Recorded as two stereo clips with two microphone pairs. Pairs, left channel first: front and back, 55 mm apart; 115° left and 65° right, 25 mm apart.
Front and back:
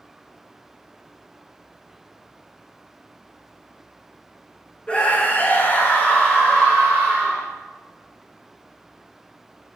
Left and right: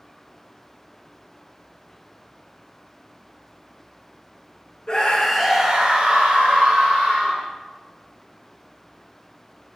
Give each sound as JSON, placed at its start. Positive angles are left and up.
{"t": 4.9, "sound": "a scream", "azimuth_deg": 65, "distance_m": 0.8}